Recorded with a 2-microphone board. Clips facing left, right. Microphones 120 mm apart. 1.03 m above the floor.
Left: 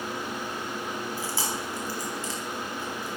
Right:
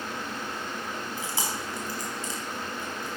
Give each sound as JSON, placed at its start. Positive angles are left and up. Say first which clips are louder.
{"t": 1.2, "sound": "chewing", "louder": "left 1 dB", "side_deg": -20, "distance_m": 4.0}